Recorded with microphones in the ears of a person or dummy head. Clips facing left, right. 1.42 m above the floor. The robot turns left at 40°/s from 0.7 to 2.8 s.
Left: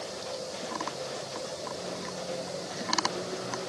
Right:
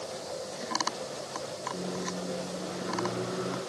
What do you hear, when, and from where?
1.7 s a microwave: 65° right, 0.8 m; by 3.6 s 110° right, 0.8 m